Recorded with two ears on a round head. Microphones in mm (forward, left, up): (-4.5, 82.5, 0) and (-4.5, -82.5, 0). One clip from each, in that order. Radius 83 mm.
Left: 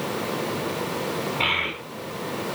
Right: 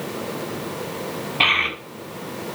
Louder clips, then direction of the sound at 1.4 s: Right 6 dB; 75° right (ahead or behind).